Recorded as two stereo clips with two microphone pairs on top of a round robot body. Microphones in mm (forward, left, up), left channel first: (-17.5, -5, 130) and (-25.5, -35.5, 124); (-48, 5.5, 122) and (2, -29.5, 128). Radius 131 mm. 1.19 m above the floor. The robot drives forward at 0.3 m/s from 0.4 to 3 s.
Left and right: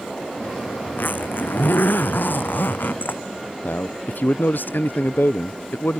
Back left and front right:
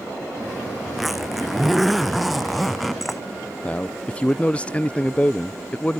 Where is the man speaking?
80° left.